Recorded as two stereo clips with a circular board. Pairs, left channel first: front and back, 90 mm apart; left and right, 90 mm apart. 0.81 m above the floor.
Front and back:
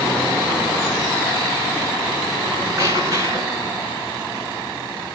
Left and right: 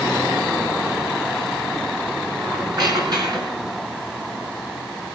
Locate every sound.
2.4 s a squeak: 125° right, 5 m